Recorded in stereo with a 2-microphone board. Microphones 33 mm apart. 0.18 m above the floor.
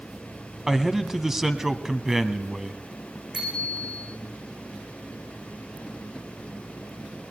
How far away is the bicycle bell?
About 9 m.